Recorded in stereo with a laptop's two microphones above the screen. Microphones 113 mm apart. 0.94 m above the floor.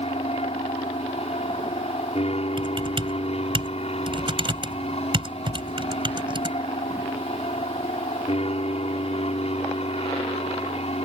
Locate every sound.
0.0 s an aircraft: 60° left (ahead or behind)
2.6 s typing on a keyboard: 45° right (ahead or behind)